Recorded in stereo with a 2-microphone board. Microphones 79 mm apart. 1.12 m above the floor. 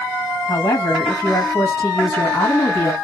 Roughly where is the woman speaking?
Left.